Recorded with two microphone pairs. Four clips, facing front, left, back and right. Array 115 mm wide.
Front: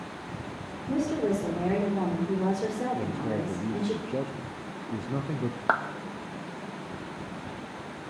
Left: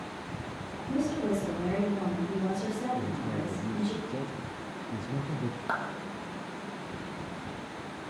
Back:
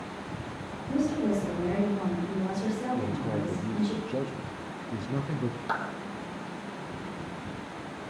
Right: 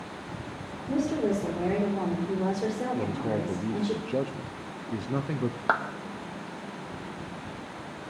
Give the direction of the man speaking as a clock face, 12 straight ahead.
3 o'clock.